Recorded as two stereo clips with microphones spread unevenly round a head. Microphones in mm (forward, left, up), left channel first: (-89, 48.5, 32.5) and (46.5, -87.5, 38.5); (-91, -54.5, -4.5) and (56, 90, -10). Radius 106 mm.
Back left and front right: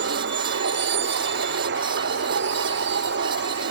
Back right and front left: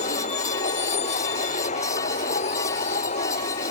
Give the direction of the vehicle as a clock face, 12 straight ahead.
2 o'clock.